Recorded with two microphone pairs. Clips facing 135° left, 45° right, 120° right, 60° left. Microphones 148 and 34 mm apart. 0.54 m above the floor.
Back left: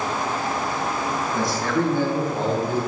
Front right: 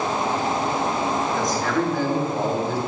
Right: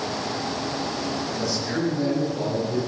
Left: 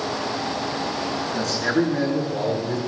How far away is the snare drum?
No snare drum in this recording.